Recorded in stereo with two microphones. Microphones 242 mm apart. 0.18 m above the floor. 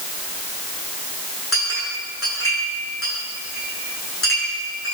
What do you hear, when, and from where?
1.5 s a clink: 60° left (ahead or behind), 9.5 m